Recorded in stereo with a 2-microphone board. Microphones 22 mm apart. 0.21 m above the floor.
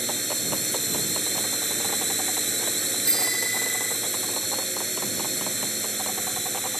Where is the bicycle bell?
30° left (ahead or behind).